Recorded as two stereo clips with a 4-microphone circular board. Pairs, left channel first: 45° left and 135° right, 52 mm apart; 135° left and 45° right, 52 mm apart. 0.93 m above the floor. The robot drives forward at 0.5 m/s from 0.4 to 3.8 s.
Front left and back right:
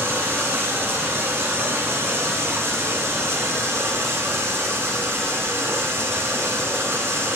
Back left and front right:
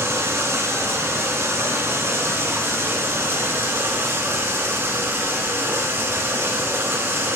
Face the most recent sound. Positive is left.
turn(degrees=-95)